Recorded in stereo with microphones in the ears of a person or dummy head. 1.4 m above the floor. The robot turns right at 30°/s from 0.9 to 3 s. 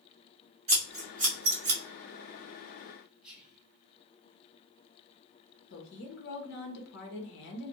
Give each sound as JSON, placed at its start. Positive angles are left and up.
{"t": 0.7, "sound": "scissors", "side_deg": -30, "distance_m": 0.6}
{"t": 3.2, "sound": "whispering", "side_deg": -5, "distance_m": 1.2}
{"t": 5.7, "sound": "a woman speaking", "side_deg": 65, "distance_m": 1.0}